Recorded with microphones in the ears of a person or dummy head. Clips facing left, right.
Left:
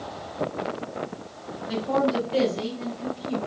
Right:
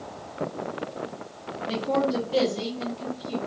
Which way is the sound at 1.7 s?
40° right (ahead or behind).